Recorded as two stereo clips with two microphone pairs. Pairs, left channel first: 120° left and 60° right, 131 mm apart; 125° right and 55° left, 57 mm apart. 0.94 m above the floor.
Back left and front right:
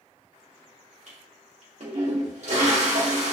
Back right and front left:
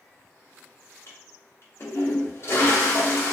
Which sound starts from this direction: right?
A toilet flushing, at 1.1 s.